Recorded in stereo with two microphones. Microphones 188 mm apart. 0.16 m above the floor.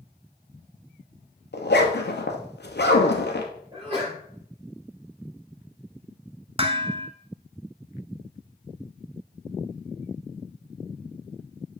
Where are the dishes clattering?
35° right (ahead or behind), 0.9 m.